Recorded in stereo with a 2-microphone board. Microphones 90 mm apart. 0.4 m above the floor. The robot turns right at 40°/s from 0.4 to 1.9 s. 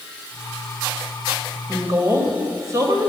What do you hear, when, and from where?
1.7 s a woman speaking: 40° right (ahead or behind), 1.8 m; by 3.1 s 35° right (ahead or behind), 1.8 m